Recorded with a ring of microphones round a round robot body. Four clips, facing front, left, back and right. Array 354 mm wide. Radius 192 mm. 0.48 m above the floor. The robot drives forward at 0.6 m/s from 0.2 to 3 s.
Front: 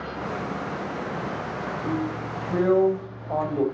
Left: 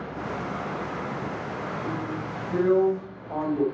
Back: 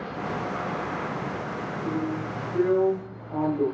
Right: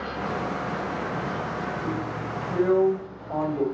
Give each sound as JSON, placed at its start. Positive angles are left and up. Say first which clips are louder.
{"t": 1.8, "sound": "a drill", "louder": "right 1 dB, even", "azimuth_deg": 0, "distance_m": 4.5}